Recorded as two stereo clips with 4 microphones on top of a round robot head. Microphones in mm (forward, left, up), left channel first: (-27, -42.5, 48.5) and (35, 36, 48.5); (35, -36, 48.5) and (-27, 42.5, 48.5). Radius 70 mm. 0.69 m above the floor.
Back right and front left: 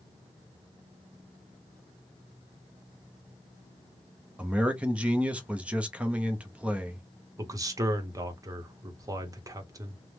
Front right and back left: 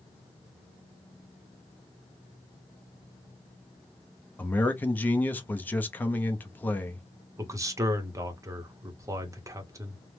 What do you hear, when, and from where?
4.4 s a man speaking: 10° right, 0.6 m
7.4 s a man speaking: 85° left, 0.8 m